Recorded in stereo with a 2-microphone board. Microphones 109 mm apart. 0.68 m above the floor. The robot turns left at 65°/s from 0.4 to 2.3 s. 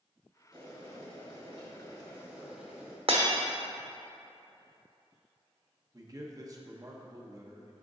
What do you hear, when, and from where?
0.5 s boiling: 50° right, 1.9 m; by 3.0 s 165° right, 1.9 m
3.1 s breaking glass: 60° right (ahead or behind), 1.0 m
5.9 s a man speaking: 30° right (ahead or behind), 0.8 m